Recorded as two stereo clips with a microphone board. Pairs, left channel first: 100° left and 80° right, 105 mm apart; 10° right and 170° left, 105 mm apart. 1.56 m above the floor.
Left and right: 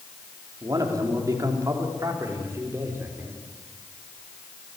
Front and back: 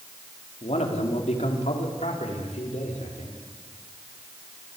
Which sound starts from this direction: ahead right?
A man speaking, at 0.6 s.